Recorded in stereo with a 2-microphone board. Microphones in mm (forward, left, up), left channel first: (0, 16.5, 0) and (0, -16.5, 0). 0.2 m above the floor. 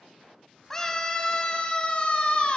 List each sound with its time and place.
0.7 s a scream: 15° left (ahead or behind), 1.1 m; by 2.6 s 40° left (ahead or behind), 1.6 m